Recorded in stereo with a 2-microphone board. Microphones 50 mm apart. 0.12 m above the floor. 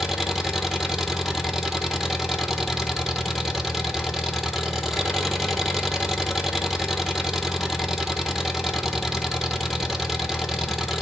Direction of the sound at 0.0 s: 5° right (ahead or behind).